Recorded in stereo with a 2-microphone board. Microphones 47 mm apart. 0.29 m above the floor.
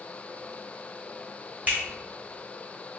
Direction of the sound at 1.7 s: 30° right (ahead or behind).